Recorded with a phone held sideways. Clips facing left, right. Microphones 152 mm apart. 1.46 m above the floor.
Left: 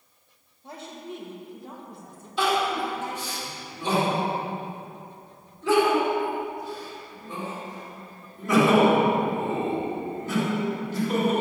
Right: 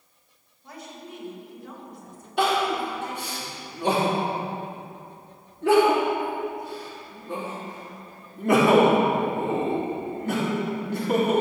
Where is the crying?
65° right (ahead or behind), 3.5 m.